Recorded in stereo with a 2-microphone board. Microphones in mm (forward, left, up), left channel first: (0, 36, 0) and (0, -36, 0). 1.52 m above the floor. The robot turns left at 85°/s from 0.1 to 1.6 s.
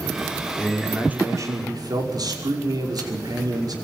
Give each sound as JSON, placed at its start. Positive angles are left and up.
{"t": 0.6, "sound": "a man speaking", "azimuth_deg": 25, "distance_m": 5.5}